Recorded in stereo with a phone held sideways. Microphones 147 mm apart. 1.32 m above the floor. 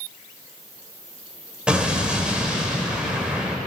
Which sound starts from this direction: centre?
An explosion, at 1.7 s.